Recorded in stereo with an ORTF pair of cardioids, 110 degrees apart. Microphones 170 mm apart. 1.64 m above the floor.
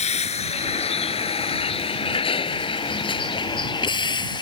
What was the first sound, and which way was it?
A vehicle, 40° left.